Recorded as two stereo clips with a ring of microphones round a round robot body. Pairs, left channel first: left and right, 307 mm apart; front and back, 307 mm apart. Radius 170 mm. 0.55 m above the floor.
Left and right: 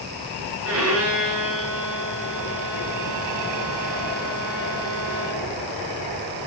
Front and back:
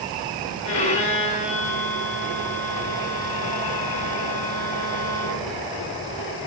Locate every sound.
0.6 s a violin: 45° right, 6 m